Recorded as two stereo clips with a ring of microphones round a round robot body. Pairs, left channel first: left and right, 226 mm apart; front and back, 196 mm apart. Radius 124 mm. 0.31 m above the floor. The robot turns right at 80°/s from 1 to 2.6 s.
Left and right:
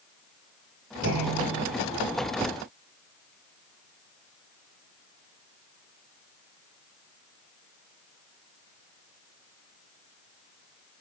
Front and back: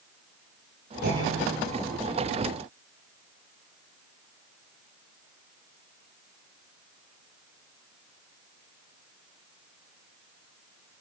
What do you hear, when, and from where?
1.0 s a clunk: 130° right, 8 m; by 1.6 s 80° right, 8 m